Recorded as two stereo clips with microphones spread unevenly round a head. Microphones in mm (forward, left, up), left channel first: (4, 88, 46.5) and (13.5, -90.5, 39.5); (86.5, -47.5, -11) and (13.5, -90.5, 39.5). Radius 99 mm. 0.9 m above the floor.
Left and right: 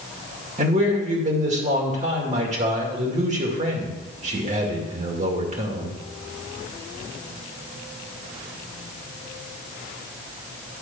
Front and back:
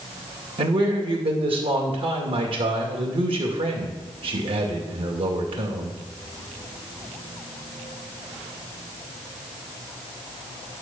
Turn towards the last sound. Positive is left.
turn(degrees=-140)